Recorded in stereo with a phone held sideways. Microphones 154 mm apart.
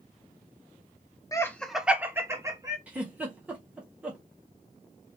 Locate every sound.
1.3 s laughter: 20° left (ahead or behind), 0.6 m; by 2.8 s 20° right (ahead or behind), 1.5 m
2.9 s a giggle: 10° right (ahead or behind), 1.4 m